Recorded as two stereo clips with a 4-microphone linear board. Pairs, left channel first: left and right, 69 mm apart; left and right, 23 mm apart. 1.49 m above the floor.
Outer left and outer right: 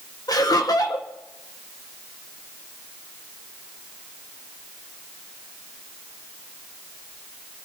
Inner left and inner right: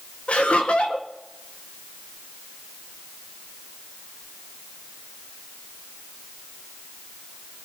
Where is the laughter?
60° left (ahead or behind), 1.7 m.